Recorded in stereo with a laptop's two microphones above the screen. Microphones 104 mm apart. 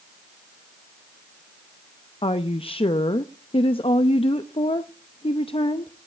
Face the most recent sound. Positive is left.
turn(degrees=60)  # may be behind; listen again after turning